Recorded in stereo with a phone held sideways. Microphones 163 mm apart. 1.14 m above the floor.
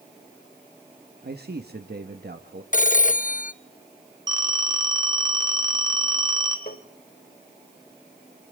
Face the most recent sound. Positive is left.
turn(degrees=70)  # may be behind; listen again after turning